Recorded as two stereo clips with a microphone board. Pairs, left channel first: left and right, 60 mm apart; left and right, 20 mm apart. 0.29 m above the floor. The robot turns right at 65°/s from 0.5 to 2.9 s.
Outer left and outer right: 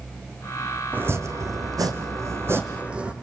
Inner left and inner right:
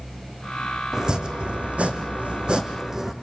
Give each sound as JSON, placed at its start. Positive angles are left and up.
{"t": 0.9, "sound": "chopping", "azimuth_deg": -150, "distance_m": 3.0}